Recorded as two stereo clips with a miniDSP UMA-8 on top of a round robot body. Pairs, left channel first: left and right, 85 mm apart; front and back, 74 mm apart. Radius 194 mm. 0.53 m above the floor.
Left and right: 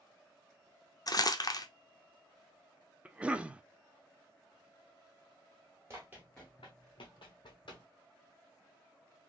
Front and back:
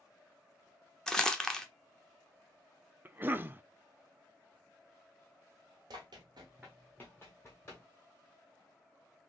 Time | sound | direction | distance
1.1 | crumpling | 80° left | 1.0 m
3.0 | a cough | 150° right | 0.8 m
5.9 | running footsteps | 150° right | 1.0 m